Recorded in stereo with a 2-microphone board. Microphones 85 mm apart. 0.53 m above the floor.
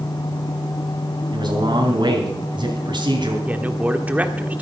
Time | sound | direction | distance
1.3 | a man speaking | 60° right (ahead or behind) | 3.5 m
3.5 | a man speaking | 15° right (ahead or behind) | 1.4 m